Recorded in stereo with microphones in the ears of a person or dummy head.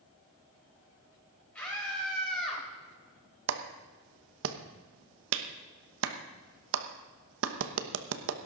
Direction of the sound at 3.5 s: 80° right.